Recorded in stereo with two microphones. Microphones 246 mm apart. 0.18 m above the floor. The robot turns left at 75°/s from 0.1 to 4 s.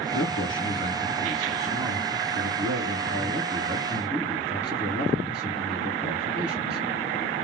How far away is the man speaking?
About 2.5 m.